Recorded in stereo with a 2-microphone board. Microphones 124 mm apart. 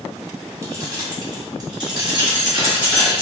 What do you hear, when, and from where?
0.6 s keys jangling: 25° right (ahead or behind), 1.2 m; by 3.2 s 40° right (ahead or behind), 2.5 m